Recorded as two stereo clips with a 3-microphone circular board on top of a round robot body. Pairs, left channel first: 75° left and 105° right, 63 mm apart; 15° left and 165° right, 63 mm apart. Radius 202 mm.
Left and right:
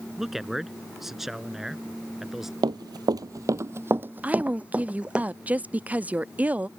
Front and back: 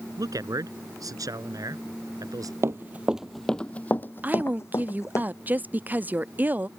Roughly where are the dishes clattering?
I don't hear dishes clattering.